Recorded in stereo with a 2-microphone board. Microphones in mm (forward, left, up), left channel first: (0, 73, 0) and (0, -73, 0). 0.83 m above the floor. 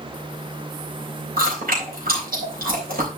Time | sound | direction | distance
1.4 | chewing | 85° right | 4 m